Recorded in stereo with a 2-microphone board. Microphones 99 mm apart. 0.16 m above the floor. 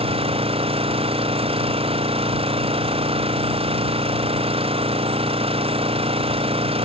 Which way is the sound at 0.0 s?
90° right.